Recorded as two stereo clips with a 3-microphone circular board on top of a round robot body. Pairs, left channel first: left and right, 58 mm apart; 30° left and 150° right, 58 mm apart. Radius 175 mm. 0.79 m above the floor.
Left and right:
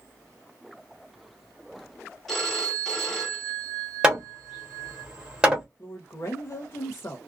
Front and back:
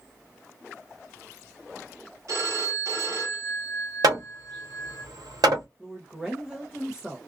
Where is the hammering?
165° right, 1.2 m.